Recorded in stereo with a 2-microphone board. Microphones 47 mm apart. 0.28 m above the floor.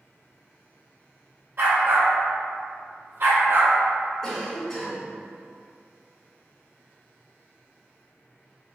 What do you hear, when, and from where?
1.6 s a dog barking: 55° right (ahead or behind), 1.4 m; by 3.8 s 50° right (ahead or behind), 1.3 m
4.2 s a cough: 10° left (ahead or behind), 1.3 m